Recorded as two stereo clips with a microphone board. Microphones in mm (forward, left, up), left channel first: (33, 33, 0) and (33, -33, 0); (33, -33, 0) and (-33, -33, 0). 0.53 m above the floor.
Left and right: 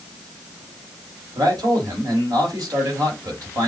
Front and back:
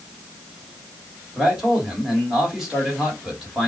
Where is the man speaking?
100° right, 1.9 m.